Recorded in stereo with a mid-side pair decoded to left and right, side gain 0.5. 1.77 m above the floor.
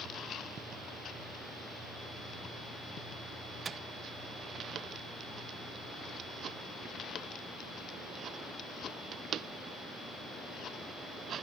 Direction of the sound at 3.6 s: 40° right.